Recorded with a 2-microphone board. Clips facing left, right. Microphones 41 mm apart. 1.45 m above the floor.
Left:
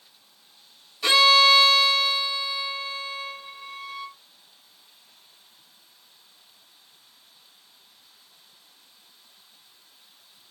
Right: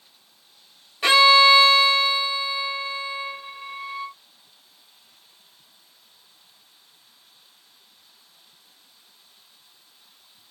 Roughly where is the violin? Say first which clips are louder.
Right 3 dB; right.